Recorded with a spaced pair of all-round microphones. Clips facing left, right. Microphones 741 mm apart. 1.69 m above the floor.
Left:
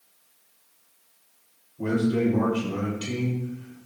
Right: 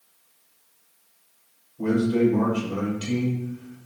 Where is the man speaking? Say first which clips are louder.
Right 3 dB; centre (ahead or behind), 5.5 m.